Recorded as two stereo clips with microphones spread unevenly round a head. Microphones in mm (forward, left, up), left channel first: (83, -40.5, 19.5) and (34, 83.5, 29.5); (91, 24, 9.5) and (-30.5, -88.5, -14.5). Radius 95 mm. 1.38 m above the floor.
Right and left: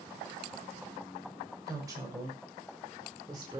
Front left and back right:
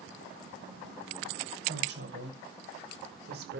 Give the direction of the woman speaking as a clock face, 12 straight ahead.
6 o'clock.